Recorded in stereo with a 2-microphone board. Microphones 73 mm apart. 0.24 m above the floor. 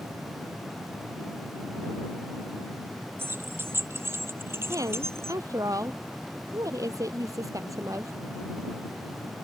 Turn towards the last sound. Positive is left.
turn(degrees=-45)  # may be behind; listen again after turning